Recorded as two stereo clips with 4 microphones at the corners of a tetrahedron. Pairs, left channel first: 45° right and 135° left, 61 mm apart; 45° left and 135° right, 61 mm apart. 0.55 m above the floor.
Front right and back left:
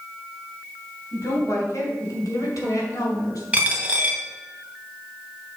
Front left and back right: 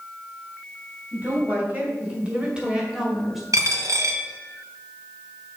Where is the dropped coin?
160° right, 1.3 m.